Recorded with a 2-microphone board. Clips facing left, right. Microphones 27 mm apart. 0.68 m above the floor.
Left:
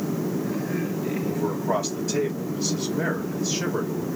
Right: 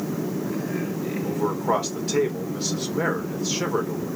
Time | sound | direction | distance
1.2 | a man speaking | 55° right (ahead or behind) | 1.9 m